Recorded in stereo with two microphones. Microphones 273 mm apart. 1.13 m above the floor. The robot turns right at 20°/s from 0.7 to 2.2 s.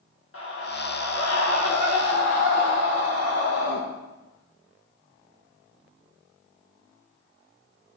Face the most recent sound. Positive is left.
turn(degrees=90)